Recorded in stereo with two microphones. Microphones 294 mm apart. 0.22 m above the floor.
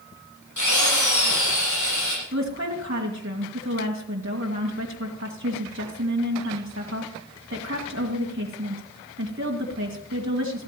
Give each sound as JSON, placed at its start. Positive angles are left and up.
{"t": 0.6, "sound": "a drill", "side_deg": 80, "distance_m": 10.0}
{"t": 2.3, "sound": "a woman speaking", "side_deg": -45, "distance_m": 2.0}